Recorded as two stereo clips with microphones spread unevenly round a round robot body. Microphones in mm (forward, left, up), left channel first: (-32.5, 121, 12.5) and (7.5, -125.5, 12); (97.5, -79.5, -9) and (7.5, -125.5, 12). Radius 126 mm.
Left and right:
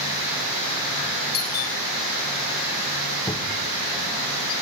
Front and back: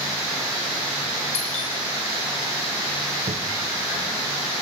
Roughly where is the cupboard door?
Behind.